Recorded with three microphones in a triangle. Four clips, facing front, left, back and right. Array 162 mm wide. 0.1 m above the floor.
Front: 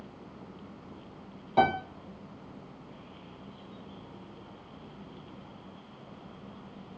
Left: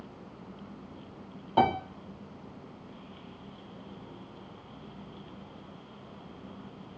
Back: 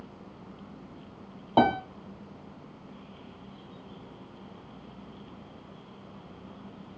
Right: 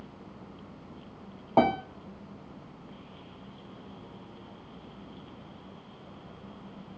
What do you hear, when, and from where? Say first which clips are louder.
1.6 s a piano: right 1 dB, back 2 dB; 140° right, 0.8 m